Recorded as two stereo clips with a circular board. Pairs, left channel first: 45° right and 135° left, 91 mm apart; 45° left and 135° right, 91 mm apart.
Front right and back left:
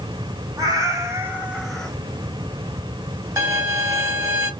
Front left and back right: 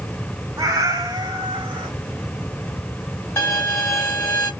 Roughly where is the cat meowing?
Behind.